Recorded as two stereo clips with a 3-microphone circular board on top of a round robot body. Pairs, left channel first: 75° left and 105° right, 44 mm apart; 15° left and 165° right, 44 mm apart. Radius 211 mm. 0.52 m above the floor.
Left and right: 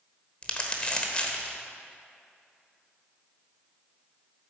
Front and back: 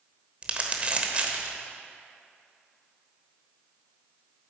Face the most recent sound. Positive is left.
turn(degrees=140)